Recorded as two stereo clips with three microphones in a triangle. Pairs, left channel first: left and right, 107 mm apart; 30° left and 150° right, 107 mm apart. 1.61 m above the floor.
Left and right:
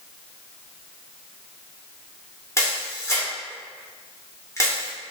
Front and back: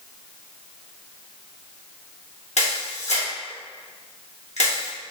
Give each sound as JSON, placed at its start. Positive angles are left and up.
{"t": 2.6, "sound": "a camera shutter", "azimuth_deg": 25, "distance_m": 2.5}